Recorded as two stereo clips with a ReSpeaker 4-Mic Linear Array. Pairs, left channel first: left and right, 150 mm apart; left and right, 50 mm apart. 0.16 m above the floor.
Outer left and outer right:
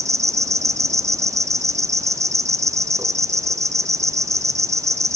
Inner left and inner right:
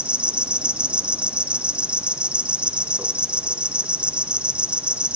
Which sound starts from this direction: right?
An insect, at 0.0 s.